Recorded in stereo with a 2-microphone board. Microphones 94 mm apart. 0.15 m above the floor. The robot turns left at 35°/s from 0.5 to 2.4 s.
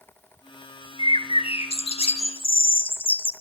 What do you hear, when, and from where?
1.0 s a bird: 115° left, 1.3 m; by 3.3 s 65° left, 1.3 m